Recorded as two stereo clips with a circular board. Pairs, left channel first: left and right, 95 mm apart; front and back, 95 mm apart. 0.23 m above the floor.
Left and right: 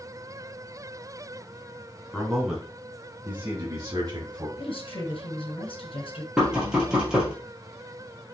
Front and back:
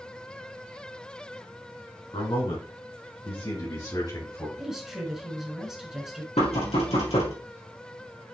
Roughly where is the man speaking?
Ahead.